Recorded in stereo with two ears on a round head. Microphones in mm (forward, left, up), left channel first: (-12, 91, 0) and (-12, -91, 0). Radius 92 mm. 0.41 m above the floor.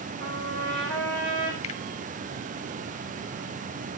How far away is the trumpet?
About 3.5 m.